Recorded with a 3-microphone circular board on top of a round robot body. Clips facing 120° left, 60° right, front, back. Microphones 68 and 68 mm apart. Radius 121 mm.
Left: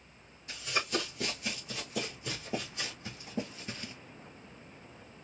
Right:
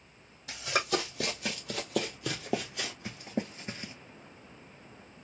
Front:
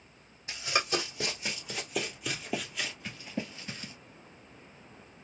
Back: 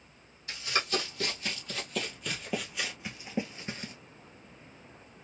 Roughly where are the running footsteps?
Right.